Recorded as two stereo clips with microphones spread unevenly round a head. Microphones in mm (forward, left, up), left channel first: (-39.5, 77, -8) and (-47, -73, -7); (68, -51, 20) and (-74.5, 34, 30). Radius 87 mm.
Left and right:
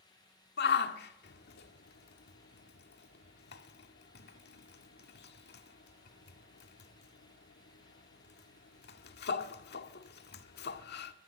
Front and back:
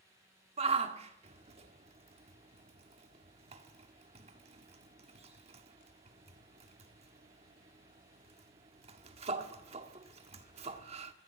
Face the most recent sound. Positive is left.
turn(degrees=95)